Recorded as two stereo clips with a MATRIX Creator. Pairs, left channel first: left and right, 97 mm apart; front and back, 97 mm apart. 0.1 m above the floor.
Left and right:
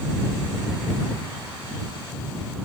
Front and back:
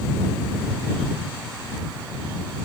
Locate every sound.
Only background noise.